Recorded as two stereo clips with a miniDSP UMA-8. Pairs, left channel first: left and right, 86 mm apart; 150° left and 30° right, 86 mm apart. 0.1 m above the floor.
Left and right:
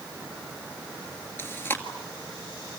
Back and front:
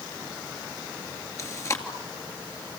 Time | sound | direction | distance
1.4 | chewing | 140° left | 2 m